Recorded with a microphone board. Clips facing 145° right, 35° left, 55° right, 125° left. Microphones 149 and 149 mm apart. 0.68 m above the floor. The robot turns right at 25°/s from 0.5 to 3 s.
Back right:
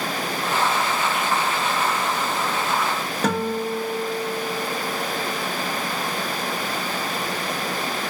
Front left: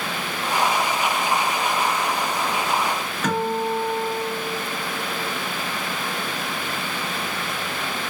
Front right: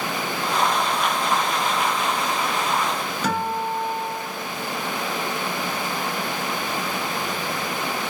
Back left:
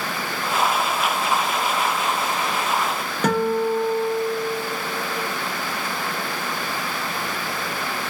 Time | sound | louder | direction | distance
3.2 | a guitar | front left 1 dB, back left 6 dB | 160° left | 0.9 m